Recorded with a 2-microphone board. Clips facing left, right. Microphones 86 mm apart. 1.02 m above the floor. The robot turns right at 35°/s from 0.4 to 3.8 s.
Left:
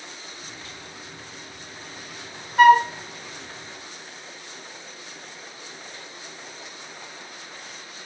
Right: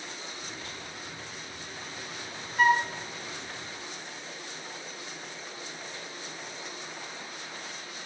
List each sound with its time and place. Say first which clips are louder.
2.6 s a flute: left 10 dB; 70° left (ahead or behind), 0.6 m; by 2.9 s 65° left (ahead or behind), 0.6 m